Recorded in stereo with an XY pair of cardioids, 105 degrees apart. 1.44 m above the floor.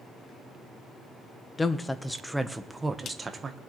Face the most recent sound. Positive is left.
turn(degrees=-35)